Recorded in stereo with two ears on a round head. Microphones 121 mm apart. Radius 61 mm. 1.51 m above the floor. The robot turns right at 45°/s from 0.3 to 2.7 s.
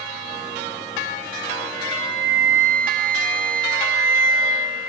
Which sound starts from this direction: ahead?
A flute, at 1.7 s.